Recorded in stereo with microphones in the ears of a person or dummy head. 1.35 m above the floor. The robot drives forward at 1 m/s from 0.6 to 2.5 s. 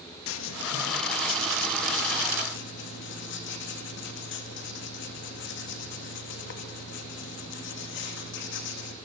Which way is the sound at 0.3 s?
75° left (ahead or behind).